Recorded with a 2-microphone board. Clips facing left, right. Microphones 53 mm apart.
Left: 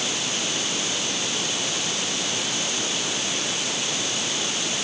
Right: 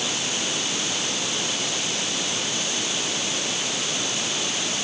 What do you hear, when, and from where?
Only background noise.